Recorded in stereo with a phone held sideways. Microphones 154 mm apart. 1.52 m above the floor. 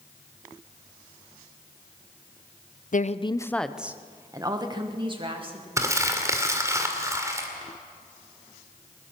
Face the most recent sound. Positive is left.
turn(degrees=-20)  # may be behind; listen again after turning